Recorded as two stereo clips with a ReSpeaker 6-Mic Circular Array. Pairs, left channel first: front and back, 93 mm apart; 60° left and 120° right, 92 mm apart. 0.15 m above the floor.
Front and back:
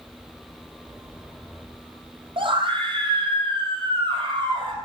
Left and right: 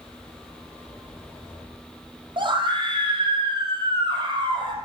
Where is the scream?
155° right, 4.5 m.